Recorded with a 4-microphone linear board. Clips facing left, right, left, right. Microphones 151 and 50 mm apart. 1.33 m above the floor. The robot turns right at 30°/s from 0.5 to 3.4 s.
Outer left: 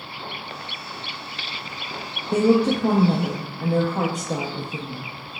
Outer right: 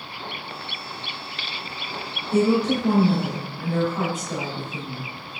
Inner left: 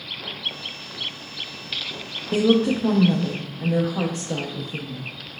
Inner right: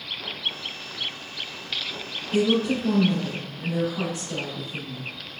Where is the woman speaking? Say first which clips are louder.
Outer left 2 dB, inner left 3 dB; 105° left, 0.5 m; by 5.1 s 140° left, 0.5 m.